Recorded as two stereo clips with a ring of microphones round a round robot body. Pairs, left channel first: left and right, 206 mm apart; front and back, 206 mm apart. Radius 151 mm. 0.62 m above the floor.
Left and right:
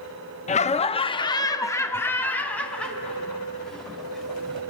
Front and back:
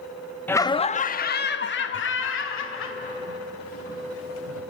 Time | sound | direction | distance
0.5 | laughter | 75° left | 0.7 m